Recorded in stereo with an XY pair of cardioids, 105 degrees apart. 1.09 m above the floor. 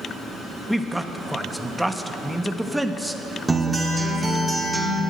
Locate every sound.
0.7 s a man speaking: 5° right, 1.1 m
3.5 s a guitar: 10° right, 2.5 m